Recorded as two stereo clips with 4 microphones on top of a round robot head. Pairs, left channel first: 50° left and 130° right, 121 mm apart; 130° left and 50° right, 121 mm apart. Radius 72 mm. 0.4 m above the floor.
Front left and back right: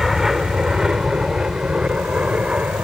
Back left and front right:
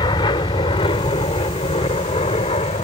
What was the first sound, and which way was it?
An aircraft, 140° left.